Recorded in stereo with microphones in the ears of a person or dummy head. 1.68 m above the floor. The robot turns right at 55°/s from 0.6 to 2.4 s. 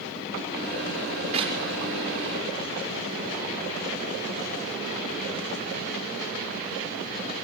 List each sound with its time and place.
1.3 s a clap: 35° right (ahead or behind), 5.5 m; by 1.6 s 20° right (ahead or behind), 5.5 m